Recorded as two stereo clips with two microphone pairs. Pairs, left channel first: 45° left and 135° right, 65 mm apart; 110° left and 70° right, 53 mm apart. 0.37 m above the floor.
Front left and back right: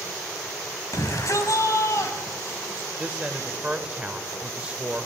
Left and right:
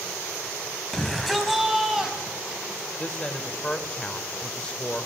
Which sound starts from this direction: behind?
A woman speaking, at 3.0 s.